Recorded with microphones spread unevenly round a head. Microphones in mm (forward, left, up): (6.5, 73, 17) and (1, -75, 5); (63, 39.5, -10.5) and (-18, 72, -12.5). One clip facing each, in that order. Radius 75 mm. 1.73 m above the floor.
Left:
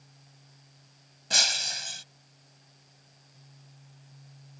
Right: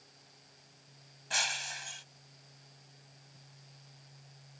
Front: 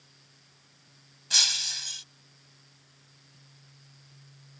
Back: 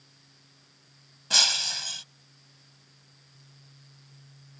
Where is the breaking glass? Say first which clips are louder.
Left 3 dB, back 6 dB; 130° left.